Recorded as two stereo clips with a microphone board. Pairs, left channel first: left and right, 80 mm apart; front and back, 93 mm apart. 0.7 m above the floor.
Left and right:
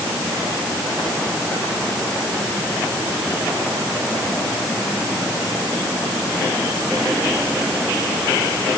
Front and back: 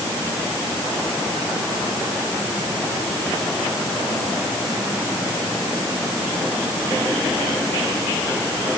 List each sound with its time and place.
Only background noise.